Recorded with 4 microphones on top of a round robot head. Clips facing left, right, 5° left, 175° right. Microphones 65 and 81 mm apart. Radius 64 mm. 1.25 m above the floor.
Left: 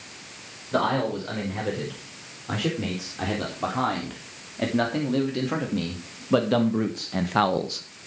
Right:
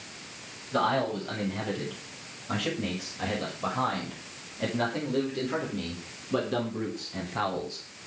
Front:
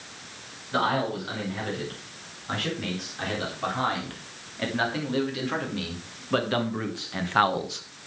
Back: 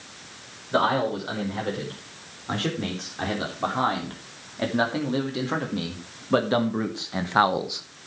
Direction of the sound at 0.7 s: 125° left.